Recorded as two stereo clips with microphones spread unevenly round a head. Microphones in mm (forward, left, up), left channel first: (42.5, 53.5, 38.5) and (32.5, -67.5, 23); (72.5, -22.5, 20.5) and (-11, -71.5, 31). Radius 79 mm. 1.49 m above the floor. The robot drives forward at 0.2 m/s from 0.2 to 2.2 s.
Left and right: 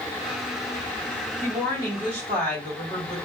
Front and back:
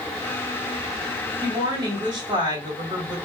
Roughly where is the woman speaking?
Right.